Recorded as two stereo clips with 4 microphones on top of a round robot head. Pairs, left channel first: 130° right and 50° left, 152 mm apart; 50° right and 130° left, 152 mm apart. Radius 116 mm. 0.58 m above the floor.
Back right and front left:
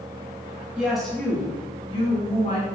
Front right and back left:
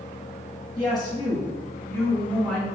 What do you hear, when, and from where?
0.8 s a woman speaking: 25° right, 1.1 m; by 2.6 s 125° right, 1.5 m